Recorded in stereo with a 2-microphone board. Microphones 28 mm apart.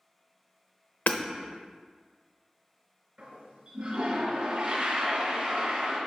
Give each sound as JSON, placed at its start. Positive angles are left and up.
{"t": 1.1, "sound": "hammering", "side_deg": 65, "distance_m": 0.7}
{"t": 3.2, "sound": "a toilet flushing", "side_deg": -40, "distance_m": 3.0}